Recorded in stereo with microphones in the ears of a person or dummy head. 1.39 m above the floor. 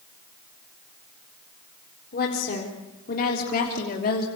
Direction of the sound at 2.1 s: 50° left (ahead or behind).